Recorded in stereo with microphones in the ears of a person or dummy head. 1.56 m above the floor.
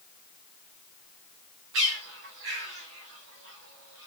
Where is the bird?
60° right (ahead or behind), 1.2 m.